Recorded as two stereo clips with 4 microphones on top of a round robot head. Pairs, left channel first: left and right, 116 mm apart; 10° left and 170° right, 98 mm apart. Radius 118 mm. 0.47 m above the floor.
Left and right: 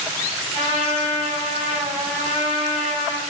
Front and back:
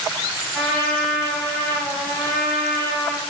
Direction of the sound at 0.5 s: 80° left.